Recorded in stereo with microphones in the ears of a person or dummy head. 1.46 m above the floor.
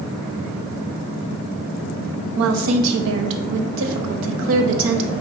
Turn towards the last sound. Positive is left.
turn(degrees=-70)  # may be behind; listen again after turning